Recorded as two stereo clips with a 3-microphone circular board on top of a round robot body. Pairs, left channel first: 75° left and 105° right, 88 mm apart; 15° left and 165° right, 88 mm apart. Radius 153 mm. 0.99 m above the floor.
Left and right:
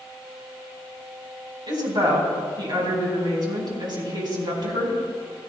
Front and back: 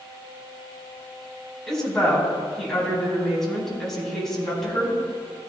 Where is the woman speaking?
70° right, 4.5 m.